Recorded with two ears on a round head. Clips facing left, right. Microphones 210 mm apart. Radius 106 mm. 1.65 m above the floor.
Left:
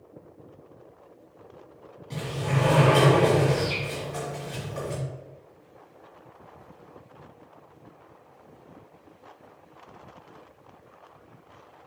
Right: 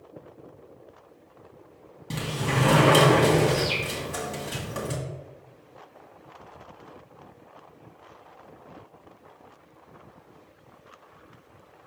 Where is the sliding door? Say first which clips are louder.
Right 1 dB; 60° right (ahead or behind), 2.5 m.